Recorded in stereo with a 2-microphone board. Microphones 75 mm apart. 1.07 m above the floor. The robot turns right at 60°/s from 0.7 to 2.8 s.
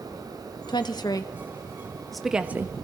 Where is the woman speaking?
75° left (ahead or behind), 1.1 m; by 2.7 s 35° right (ahead or behind), 1.1 m.